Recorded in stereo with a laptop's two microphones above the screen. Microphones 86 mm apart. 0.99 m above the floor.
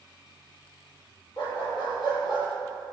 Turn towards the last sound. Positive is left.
turn(degrees=55)  # may be behind; listen again after turning